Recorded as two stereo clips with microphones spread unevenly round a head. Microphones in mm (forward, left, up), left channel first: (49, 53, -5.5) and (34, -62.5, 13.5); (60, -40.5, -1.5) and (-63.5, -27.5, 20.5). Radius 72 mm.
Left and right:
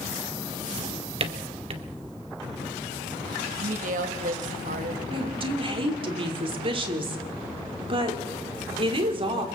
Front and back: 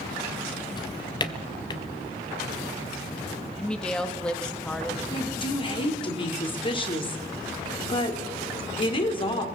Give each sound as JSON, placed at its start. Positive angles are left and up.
{"t": 0.8, "sound": "a drawer", "azimuth_deg": -65, "distance_m": 1.8}
{"t": 3.6, "sound": "a woman speaking", "azimuth_deg": -90, "distance_m": 1.5}
{"t": 5.1, "sound": "a woman speaking", "azimuth_deg": -55, "distance_m": 3.5}